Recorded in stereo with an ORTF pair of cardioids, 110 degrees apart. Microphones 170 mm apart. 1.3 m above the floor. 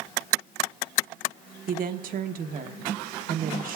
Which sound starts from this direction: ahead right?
A woman speaking, at 1.7 s.